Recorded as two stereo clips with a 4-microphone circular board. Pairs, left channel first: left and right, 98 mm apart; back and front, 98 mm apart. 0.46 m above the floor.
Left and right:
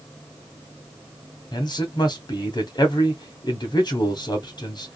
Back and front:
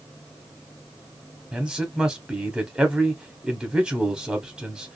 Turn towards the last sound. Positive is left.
turn(degrees=80)